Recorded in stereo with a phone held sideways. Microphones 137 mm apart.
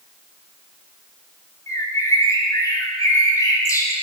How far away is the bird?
About 2 m.